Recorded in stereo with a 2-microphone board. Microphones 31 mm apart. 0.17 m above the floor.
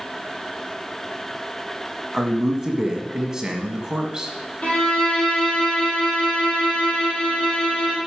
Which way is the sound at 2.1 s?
20° right (ahead or behind).